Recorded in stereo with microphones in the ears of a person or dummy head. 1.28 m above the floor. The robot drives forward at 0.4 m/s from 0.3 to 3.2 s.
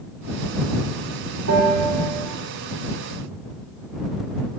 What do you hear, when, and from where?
1.5 s a bell: 75° right (ahead or behind), 2 m; by 2.3 s 85° right, 2 m